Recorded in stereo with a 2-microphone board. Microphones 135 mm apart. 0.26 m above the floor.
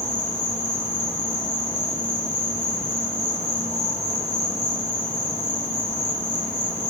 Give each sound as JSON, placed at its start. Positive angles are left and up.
{"t": 0.0, "sound": "an insect", "side_deg": 65, "distance_m": 1.5}